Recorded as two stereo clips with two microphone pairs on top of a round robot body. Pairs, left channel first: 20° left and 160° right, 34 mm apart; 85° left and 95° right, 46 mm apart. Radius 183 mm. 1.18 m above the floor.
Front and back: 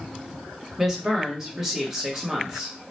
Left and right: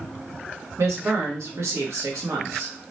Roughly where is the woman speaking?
Right.